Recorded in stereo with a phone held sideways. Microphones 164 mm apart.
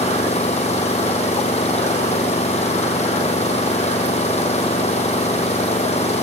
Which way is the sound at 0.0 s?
40° left (ahead or behind).